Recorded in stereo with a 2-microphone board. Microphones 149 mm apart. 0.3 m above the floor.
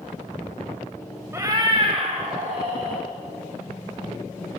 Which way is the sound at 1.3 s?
15° right (ahead or behind).